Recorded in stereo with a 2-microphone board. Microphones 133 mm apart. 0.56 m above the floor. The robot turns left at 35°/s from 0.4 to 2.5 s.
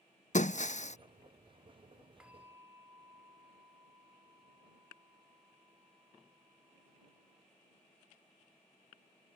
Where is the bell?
5° right (ahead or behind); by 7.5 s 15° right (ahead or behind).